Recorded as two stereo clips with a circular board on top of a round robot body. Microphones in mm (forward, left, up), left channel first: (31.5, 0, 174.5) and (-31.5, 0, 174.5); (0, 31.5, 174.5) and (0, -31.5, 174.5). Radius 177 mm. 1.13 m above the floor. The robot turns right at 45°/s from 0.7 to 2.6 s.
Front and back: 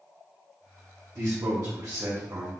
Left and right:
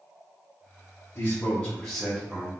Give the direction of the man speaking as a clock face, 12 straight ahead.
7 o'clock.